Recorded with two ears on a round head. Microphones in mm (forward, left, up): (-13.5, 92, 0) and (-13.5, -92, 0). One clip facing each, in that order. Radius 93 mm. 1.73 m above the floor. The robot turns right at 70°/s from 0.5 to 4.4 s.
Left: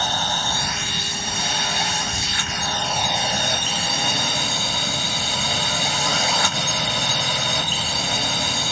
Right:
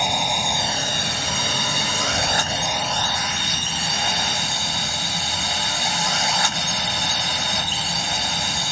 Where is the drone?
170° right; by 8.7 s 105° left.